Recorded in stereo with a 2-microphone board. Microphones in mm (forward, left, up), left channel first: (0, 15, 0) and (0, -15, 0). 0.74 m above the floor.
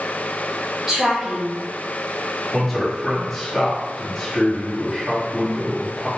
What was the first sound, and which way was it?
A woman speaking, 15° right (ahead or behind).